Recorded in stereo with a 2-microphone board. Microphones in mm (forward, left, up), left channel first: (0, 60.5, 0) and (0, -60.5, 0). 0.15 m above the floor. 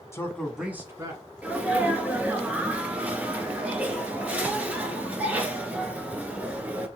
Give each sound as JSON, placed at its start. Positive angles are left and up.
{"t": 0.1, "sound": "a man speaking", "side_deg": 25, "distance_m": 1.0}
{"t": 1.4, "sound": "a sneeze", "side_deg": -15, "distance_m": 1.8}